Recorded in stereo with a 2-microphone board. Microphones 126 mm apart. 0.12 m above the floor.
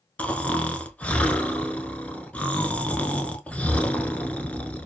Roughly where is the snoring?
Centre.